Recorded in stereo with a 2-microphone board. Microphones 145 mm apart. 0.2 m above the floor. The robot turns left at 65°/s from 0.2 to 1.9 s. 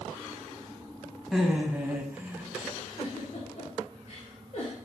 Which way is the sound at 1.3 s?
Centre (ahead or behind).